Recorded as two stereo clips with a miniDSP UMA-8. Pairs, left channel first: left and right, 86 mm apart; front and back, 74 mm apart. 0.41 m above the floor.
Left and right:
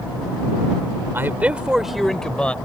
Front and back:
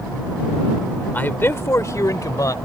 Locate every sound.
1.1 s a man speaking: 50° right; by 2.5 s 15° left